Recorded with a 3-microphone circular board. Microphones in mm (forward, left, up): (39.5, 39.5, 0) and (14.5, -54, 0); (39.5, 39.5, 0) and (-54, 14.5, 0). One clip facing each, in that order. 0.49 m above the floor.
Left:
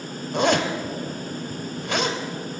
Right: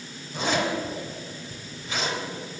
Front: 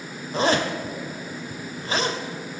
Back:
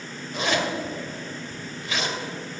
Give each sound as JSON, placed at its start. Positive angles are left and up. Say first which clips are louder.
{"t": 0.3, "sound": "a zipper", "louder": "left 4 dB, front 3 dB", "azimuth_deg": 65, "distance_m": 1.7}